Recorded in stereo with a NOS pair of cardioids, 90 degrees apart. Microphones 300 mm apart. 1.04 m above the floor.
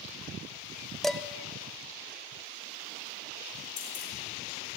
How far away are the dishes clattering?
About 0.5 m.